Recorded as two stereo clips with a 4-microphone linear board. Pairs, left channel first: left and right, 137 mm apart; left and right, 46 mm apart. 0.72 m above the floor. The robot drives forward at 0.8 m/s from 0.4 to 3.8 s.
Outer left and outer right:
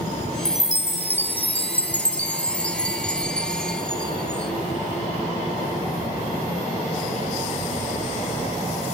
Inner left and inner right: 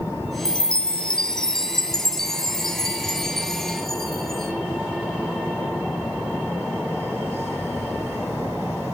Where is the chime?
25° left (ahead or behind), 0.9 m; by 4.5 s 5° left (ahead or behind), 3.5 m.